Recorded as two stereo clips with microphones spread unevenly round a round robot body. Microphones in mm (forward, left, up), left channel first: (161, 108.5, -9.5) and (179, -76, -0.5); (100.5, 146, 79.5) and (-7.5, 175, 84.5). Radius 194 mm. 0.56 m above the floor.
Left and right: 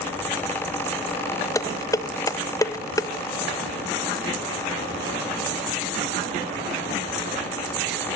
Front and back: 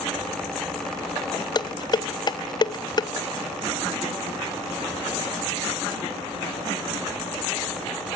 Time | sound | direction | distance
1.6 | dishes clattering | 30° left | 0.6 m